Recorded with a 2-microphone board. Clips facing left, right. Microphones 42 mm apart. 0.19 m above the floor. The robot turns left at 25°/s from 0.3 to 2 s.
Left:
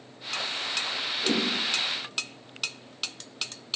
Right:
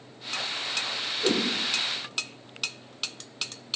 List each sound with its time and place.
1.2 s a whoosh: 30° right (ahead or behind), 2 m; by 1.5 s 35° right (ahead or behind), 2 m